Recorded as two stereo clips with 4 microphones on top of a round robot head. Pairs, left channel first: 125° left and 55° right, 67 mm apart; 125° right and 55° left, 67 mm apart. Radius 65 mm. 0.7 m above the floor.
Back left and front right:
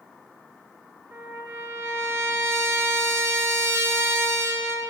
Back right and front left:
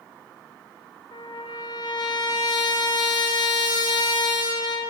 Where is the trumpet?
115° right, 1.6 m.